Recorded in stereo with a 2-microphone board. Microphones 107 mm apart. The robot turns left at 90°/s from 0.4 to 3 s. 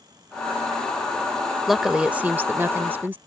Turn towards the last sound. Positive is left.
turn(degrees=-15)  # may be behind; listen again after turning